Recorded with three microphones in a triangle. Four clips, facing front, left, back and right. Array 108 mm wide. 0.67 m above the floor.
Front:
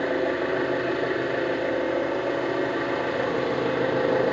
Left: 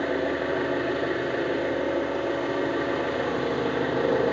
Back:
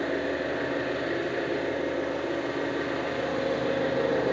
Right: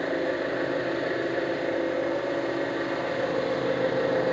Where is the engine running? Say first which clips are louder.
Left 1 dB, front 4 dB; 25° left, 2.5 m.